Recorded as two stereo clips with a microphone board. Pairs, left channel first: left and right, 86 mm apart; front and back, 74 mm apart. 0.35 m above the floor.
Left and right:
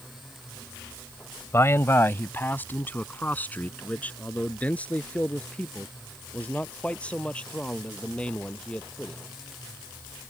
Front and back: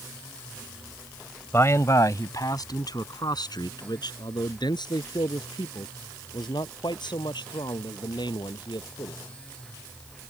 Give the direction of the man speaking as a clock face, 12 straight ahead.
11 o'clock.